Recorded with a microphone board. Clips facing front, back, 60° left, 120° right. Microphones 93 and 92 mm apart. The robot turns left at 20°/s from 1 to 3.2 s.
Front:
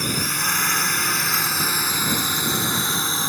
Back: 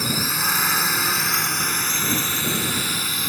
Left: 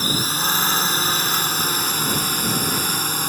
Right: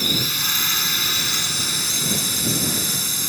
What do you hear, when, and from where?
0.0 s a drone: 95° left; by 3.3 s 50° left